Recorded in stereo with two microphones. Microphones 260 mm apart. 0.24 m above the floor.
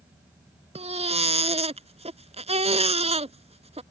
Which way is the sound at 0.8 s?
25° right (ahead or behind).